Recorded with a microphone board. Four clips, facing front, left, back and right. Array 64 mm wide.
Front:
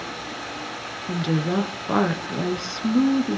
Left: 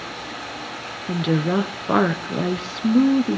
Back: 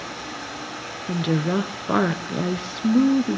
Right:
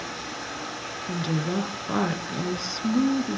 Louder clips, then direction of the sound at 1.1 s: Left 7 dB, back 1 dB; 105° left.